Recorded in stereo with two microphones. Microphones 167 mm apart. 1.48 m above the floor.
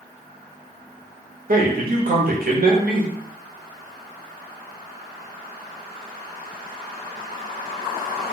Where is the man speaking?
60° right (ahead or behind), 0.8 m.